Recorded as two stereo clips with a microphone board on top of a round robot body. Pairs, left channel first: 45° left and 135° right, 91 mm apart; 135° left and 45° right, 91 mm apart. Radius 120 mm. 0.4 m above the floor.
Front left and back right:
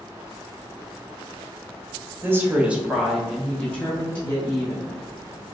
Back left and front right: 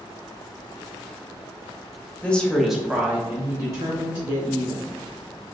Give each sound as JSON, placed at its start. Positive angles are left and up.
{"t": 2.2, "sound": "a woman speaking", "azimuth_deg": -165, "distance_m": 1.1}